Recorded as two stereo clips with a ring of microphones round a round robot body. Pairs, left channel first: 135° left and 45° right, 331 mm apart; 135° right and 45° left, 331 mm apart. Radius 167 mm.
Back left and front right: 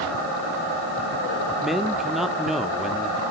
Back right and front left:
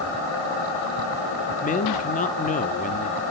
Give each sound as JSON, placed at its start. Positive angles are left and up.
{"t": 1.6, "sound": "a man speaking", "azimuth_deg": -135, "distance_m": 1.2}